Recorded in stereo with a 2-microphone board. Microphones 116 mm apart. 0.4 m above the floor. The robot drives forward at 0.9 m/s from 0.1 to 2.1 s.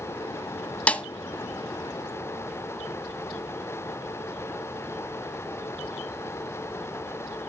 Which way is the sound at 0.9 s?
10° left (ahead or behind).